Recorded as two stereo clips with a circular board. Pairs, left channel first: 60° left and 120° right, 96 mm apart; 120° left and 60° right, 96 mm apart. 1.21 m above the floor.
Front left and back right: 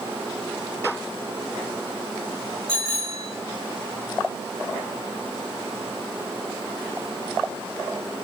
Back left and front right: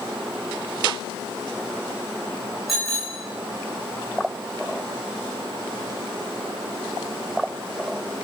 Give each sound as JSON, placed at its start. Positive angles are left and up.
{"t": 2.7, "sound": "a bicycle bell", "azimuth_deg": -150, "distance_m": 5.5}